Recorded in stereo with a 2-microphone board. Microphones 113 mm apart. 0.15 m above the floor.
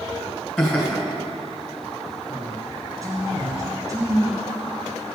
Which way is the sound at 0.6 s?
5° left (ahead or behind).